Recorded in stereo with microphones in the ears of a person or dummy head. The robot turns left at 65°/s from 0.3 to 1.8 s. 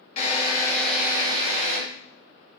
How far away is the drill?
About 3 m.